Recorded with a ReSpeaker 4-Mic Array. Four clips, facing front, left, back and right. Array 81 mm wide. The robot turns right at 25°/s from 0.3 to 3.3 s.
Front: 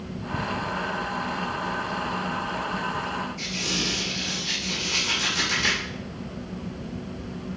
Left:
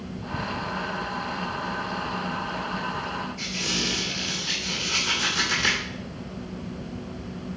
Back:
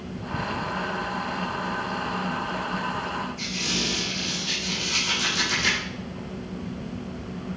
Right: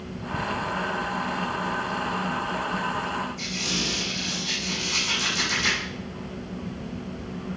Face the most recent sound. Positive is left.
turn(degrees=95)